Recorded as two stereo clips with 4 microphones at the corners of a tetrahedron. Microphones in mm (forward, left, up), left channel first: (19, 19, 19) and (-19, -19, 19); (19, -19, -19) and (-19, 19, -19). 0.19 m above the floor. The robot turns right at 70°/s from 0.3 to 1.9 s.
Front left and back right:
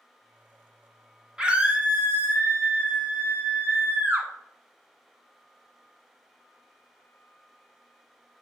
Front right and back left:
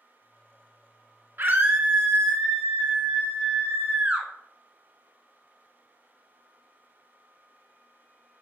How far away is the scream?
About 1.5 m.